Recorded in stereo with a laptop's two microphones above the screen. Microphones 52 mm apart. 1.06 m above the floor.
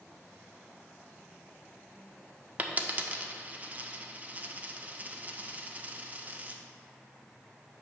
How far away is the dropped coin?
About 0.5 m.